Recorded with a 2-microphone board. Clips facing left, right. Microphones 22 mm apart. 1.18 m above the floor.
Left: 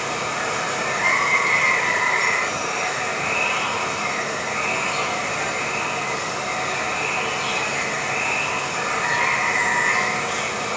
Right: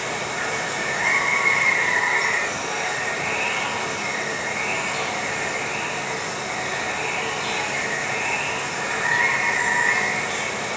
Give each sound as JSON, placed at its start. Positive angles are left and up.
{"t": 0.0, "sound": "running water", "side_deg": 85, "distance_m": 2.5}